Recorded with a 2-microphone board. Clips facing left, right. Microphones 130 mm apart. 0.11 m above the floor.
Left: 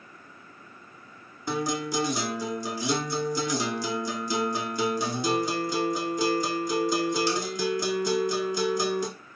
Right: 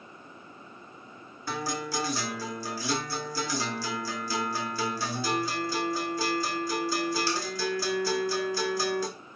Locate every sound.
1.5 s a guitar: 20° left (ahead or behind), 0.6 m